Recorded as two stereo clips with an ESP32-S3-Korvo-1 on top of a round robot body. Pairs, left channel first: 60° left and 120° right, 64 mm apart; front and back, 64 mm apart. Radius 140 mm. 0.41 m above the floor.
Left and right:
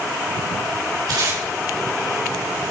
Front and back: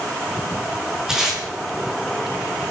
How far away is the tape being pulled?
About 7.5 m.